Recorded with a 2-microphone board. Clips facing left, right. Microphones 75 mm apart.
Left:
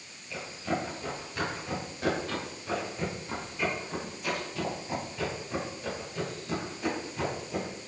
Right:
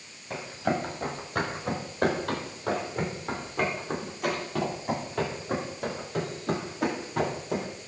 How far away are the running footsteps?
About 5.5 m.